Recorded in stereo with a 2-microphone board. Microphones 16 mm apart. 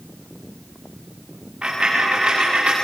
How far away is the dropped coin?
About 8 m.